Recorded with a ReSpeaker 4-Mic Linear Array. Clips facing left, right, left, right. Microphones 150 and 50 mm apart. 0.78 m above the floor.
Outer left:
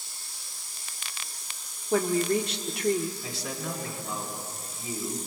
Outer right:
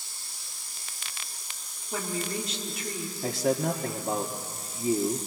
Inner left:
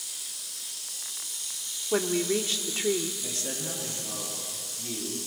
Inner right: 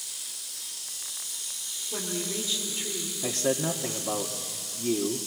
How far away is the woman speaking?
About 1.6 m.